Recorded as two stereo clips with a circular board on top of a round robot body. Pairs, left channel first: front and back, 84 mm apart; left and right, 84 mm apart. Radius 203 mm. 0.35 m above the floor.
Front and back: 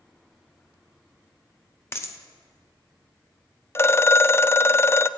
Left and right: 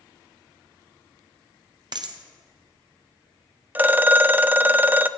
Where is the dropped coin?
60° right, 0.9 m.